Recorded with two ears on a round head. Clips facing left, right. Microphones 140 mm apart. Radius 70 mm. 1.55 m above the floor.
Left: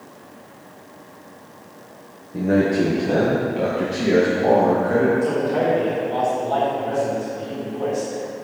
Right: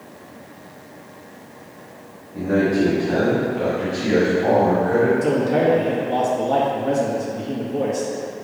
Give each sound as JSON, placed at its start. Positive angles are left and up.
{"t": 2.3, "sound": "a man speaking", "side_deg": 50, "distance_m": 1.3}
{"t": 5.2, "sound": "a man speaking", "side_deg": -60, "distance_m": 2.0}